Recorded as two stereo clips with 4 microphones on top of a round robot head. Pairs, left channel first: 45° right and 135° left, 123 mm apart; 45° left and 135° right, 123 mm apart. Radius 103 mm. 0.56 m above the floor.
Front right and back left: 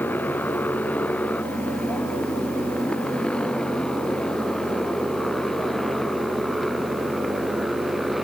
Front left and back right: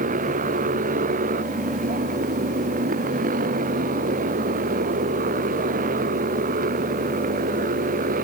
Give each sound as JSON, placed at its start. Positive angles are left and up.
{"t": 0.0, "sound": "a motorcycle", "azimuth_deg": -120}